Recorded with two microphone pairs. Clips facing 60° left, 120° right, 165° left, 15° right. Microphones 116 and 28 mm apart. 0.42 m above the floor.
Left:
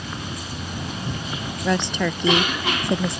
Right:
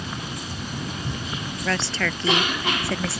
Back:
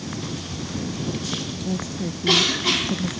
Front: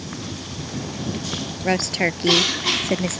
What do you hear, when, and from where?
1.6 s a woman speaking: 15° right